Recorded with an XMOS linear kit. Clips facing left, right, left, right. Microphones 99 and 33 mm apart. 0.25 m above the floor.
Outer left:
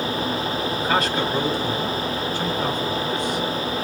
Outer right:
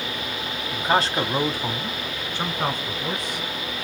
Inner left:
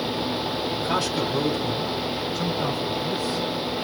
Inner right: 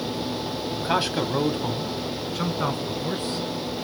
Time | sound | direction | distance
0.7 | a man speaking | 20° right (ahead or behind) | 1.3 m